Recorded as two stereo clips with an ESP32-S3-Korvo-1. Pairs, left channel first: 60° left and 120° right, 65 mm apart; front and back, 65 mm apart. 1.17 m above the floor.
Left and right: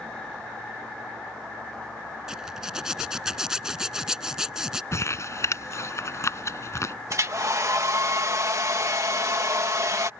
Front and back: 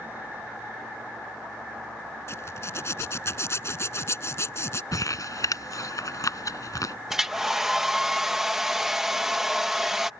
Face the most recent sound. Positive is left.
turn(degrees=-95)